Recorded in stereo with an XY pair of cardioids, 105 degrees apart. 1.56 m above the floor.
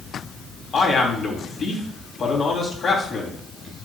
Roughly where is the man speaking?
Ahead left.